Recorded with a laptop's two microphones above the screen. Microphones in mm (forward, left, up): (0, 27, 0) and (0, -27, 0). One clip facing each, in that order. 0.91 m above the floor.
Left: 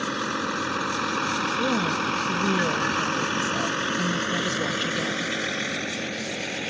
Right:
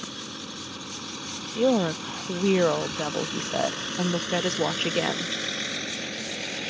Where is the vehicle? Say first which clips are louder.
Left 11 dB; 80° left; by 6.7 s 15° left (ahead or behind).